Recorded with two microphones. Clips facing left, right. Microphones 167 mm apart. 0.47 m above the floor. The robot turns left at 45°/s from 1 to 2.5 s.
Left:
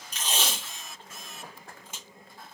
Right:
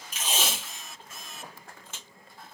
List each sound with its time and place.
0.1 s tape being pulled: 10° right (ahead or behind), 1.6 m; by 2.0 s 20° left (ahead or behind), 1.6 m